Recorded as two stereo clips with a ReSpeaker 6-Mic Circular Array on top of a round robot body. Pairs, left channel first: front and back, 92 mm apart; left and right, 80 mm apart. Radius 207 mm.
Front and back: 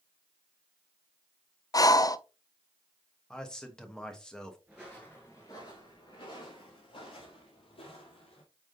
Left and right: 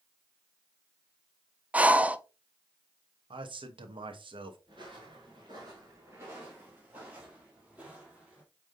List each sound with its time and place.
1.7 s breathing: 25° right, 0.8 m
3.3 s a man speaking: 85° right, 1.4 m
4.7 s footsteps: 105° right, 1.1 m; by 8.4 s 15° right, 2.5 m